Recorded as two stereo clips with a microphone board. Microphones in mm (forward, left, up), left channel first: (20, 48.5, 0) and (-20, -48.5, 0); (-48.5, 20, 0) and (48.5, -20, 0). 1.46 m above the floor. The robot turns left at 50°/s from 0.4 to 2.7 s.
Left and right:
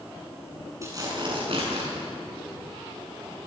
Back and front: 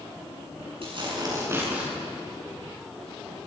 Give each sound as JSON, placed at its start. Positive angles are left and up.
{"t": 0.8, "sound": "tearing paper", "azimuth_deg": -50, "distance_m": 8.5}